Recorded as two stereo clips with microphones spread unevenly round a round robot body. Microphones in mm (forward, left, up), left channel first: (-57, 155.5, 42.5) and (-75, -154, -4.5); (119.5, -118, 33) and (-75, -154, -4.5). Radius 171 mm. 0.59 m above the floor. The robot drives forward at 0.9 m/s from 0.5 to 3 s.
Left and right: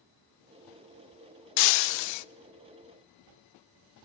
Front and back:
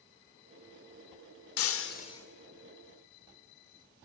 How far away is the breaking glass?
About 0.9 m.